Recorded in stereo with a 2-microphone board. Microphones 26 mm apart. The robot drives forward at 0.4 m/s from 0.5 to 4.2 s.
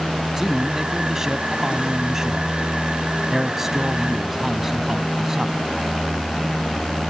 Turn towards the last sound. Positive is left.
turn(degrees=-15)  # may be behind; listen again after turning